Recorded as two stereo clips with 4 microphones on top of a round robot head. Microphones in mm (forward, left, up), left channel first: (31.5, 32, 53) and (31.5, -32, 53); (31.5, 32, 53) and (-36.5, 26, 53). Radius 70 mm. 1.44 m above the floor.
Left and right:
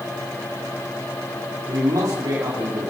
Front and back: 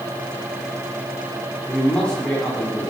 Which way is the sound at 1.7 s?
70° right.